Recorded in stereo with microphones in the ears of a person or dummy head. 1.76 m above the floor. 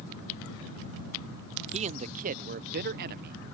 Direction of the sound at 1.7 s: 35° right (ahead or behind).